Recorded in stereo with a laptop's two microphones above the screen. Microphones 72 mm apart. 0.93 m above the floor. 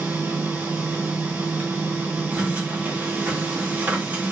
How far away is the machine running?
About 1.6 m.